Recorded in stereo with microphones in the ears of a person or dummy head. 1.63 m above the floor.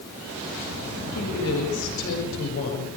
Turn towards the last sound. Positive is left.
turn(degrees=80)